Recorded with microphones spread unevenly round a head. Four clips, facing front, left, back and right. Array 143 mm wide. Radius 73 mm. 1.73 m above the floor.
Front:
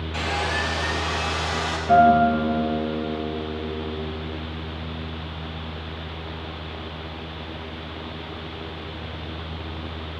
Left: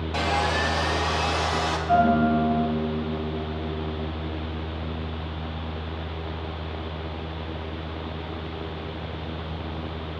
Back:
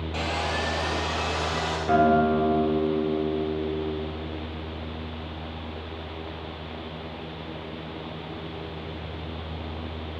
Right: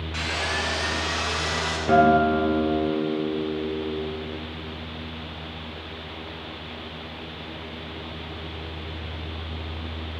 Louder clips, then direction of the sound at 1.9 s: Right 3 dB, front 5 dB; 115° right.